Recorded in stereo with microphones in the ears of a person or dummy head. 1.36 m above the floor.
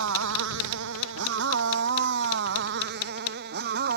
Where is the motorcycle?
70° right (ahead or behind); by 4.0 s 50° right (ahead or behind).